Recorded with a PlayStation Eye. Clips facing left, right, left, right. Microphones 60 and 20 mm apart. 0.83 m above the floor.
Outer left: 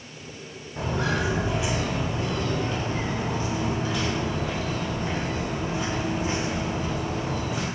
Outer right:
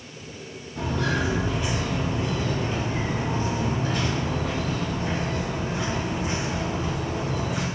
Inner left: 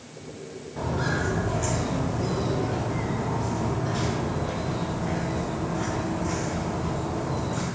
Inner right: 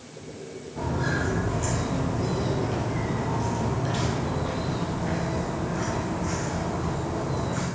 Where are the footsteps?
25° left (ahead or behind), 1.4 m; by 7.7 s 60° right (ahead or behind), 3 m.